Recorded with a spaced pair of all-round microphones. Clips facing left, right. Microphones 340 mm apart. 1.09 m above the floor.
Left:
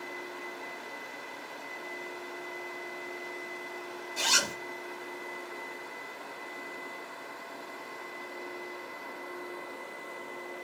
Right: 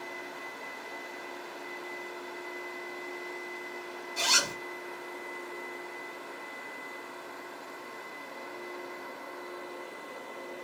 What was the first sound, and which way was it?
A zipper, centre (ahead or behind).